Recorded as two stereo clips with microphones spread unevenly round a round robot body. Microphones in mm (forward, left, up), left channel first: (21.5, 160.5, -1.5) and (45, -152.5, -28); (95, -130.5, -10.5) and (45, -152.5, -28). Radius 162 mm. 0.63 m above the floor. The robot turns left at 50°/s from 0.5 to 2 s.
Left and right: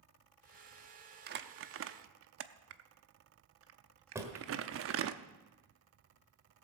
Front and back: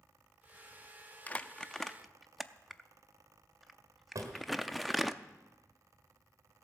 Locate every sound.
1.3 s crumpling: 50° right, 0.6 m; by 5.2 s 85° right, 0.6 m
4.2 s a drawer: 165° right, 1.5 m